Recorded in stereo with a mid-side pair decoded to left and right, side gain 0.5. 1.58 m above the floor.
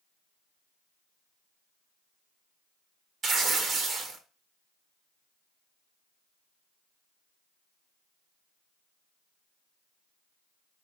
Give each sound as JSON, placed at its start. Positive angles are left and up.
{"t": 3.2, "sound": "tearing paper", "azimuth_deg": -50, "distance_m": 1.0}